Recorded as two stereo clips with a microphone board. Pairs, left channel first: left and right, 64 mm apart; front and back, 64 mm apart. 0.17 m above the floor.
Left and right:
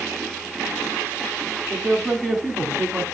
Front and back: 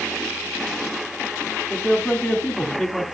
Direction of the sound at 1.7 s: 15° left.